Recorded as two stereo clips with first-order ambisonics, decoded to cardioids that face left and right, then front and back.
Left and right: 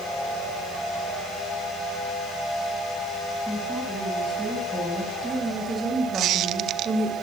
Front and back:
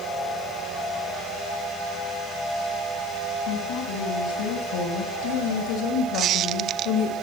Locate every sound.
3.5 s a woman speaking: 10° right, 5.5 m; by 7.1 s 25° right, 3 m
6.1 s a squeak: 130° right, 0.8 m